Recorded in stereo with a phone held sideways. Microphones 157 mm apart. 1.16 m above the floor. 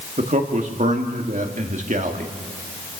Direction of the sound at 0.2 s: 55° right (ahead or behind).